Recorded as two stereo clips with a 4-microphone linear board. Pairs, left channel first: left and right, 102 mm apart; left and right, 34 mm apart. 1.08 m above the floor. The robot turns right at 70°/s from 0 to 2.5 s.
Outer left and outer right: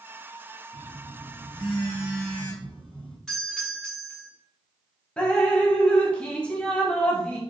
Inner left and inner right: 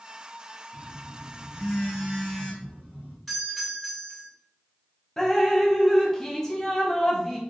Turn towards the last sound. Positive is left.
turn(degrees=10)  # may be behind; listen again after turning